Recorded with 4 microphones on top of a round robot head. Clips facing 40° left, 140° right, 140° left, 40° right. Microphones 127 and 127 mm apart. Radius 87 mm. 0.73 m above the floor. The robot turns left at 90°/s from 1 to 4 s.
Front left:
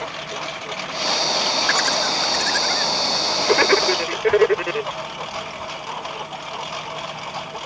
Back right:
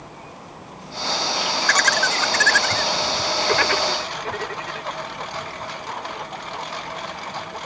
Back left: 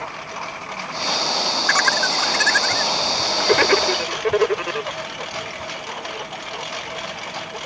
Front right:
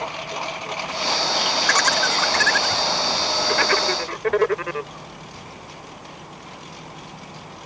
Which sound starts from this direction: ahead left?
A lawn mower, at 0.0 s.